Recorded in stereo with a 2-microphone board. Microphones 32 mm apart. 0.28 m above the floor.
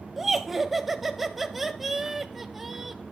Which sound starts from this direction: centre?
Laughter, at 0.2 s.